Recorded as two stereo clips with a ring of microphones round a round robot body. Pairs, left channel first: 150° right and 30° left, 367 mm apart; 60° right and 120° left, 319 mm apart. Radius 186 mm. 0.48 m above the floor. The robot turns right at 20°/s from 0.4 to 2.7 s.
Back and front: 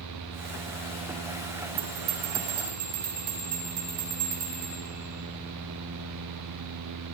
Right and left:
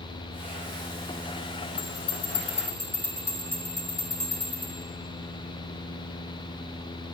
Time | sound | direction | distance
1.8 | a bell | straight ahead | 3 m